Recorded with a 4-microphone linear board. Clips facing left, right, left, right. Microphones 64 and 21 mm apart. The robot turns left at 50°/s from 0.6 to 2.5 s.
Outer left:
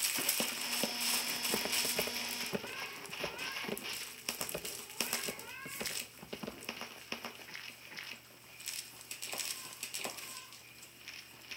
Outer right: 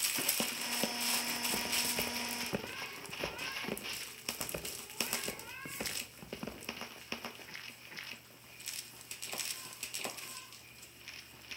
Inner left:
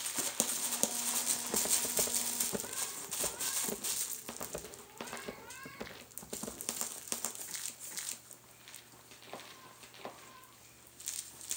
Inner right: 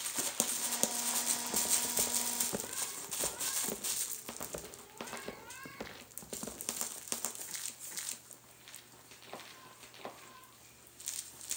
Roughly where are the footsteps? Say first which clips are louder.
Even, even; left.